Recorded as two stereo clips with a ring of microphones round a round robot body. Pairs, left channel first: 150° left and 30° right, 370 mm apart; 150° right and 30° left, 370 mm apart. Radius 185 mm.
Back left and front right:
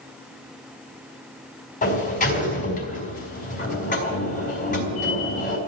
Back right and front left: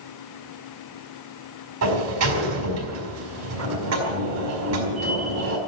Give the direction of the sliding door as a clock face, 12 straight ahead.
9 o'clock.